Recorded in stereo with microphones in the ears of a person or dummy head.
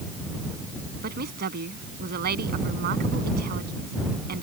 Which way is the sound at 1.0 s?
55° right (ahead or behind).